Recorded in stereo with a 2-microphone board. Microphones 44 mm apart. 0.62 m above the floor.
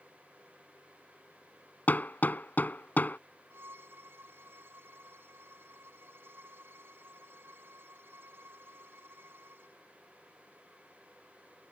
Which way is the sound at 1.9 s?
45° left (ahead or behind).